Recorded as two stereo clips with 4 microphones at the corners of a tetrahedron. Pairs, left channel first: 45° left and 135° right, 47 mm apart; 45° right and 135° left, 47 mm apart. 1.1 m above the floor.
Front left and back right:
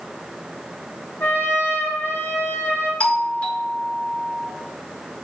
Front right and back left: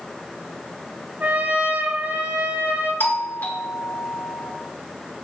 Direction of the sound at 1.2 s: 85° left.